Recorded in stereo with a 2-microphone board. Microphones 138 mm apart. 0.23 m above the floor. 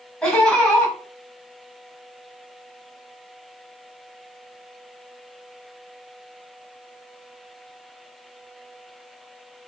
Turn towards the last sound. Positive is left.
turn(degrees=5)  # may be behind; listen again after turning